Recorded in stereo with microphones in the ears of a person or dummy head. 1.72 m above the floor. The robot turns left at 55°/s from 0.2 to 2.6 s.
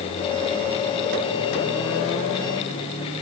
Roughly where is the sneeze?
No sneeze in this recording.